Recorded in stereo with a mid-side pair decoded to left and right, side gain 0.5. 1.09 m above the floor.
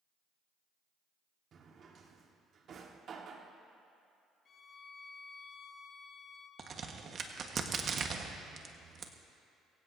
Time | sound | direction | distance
1.5 | a drawer | 50° right | 1.5 m
4.5 | a violin | 45° left | 1.4 m
6.6 | a crack | 45° right | 1.4 m